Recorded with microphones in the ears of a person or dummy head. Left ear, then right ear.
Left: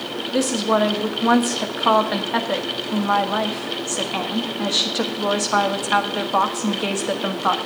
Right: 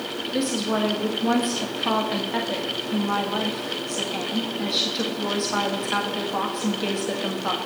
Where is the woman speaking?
25° left (ahead or behind), 1.3 m.